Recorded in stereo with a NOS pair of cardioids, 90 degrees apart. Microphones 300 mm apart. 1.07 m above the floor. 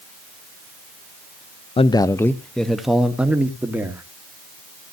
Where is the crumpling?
No crumpling in this recording.